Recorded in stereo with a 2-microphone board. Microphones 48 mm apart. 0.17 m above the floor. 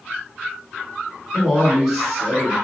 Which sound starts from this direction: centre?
A man speaking, at 1.3 s.